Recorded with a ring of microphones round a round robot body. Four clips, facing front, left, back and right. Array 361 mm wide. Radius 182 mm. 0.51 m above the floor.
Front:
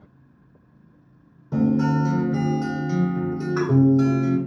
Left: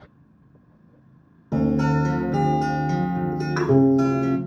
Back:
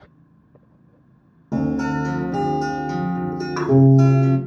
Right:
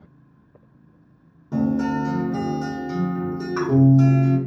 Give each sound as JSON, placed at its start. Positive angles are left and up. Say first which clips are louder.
{"t": 1.5, "sound": "a guitar", "louder": "left 1 dB, front 1 dB", "azimuth_deg": 165, "distance_m": 1.4}